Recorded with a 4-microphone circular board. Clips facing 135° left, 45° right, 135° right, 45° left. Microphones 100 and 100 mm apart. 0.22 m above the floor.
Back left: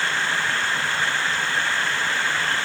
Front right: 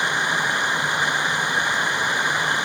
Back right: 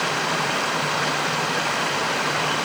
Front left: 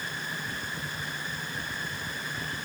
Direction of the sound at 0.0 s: 120° right.